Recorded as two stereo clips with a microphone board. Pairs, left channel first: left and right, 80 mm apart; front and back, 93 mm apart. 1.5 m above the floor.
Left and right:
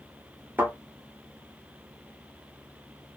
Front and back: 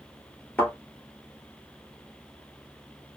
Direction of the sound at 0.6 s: 55° right.